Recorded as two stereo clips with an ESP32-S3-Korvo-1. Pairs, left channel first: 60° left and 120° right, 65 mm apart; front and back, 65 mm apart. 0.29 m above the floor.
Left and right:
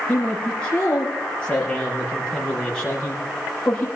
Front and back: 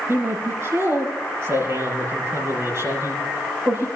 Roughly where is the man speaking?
Behind left.